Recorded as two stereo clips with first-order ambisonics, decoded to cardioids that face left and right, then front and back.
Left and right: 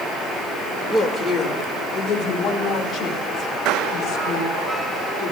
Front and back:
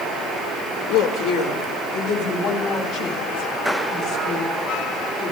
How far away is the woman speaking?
About 1.4 m.